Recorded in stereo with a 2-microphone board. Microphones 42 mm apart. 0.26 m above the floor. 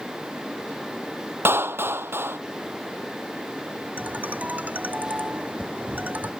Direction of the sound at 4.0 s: 40° right (ahead or behind).